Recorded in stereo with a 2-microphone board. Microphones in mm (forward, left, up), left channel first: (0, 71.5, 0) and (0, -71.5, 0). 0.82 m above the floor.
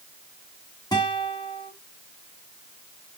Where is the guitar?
30° left (ahead or behind), 2.0 m.